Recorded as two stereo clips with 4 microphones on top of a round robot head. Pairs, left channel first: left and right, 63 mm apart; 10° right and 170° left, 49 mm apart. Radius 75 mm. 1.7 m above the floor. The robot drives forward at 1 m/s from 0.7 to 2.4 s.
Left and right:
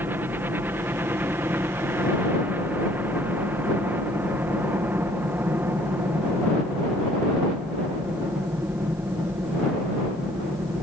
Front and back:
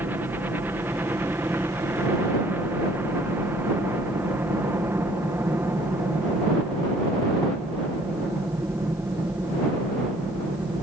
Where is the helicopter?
140° right; by 10.8 s 145° right.